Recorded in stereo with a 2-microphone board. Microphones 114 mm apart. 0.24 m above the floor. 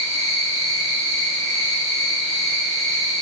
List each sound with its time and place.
0.0 s an insect: 60° right (ahead or behind), 4.5 m